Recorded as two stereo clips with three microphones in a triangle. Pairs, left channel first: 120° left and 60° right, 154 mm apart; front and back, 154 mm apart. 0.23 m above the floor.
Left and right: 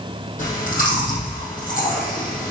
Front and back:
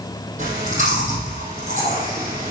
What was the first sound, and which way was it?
Chewing, 150° left.